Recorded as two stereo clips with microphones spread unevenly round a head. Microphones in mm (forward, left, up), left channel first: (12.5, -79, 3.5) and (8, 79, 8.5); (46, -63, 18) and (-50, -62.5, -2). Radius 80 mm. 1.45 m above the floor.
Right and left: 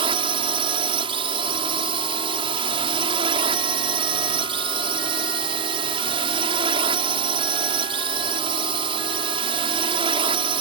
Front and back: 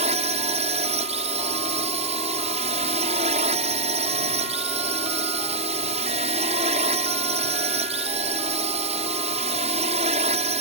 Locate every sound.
0.0 s a drone: 150° left